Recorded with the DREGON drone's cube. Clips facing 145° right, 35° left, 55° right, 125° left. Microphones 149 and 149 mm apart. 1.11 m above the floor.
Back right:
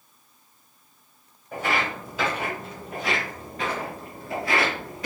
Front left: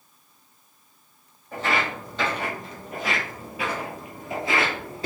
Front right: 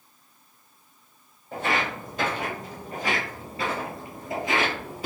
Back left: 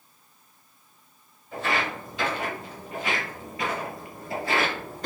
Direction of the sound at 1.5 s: 70° right.